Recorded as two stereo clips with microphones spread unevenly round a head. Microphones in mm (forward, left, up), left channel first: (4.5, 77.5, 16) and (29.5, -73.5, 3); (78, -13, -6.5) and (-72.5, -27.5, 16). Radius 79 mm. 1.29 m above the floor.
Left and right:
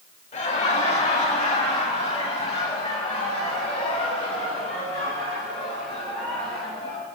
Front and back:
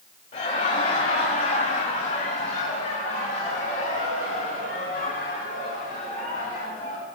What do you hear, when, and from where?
0.3 s laughter: 55° left, 2.5 m; by 7.1 s 50° left, 8 m